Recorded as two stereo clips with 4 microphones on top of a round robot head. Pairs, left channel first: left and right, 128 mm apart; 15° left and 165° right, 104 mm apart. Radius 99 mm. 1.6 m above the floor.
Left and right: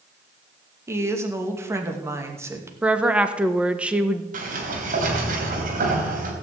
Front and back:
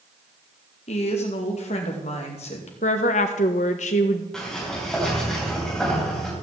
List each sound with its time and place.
0.9 s a woman speaking: 20° right, 2.5 m
2.8 s a woman speaking: 10° right, 1.2 m
4.3 s a sliding door: 75° right, 3.5 m